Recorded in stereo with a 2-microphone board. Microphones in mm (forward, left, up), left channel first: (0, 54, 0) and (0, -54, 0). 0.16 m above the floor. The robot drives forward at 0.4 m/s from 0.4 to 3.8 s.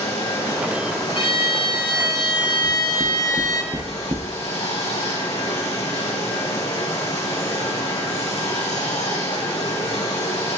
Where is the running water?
60° left (ahead or behind), 5.5 m; by 10.6 s 70° left (ahead or behind), 5 m.